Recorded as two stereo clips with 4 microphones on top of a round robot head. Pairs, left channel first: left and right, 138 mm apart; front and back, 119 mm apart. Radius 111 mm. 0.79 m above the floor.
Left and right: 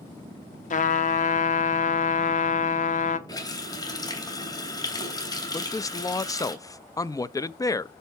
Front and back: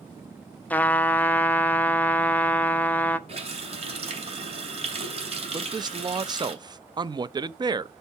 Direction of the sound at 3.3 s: 150° left.